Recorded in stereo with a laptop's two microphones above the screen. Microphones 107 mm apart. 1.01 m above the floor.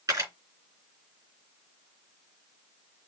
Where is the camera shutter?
30° right (ahead or behind), 3.5 m.